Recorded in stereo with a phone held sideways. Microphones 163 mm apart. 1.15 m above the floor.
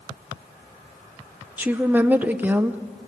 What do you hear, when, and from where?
1.6 s a woman speaking: 10° right (ahead or behind), 0.6 m